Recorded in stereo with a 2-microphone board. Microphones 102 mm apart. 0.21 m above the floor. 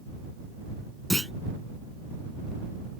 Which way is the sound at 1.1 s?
Centre (ahead or behind).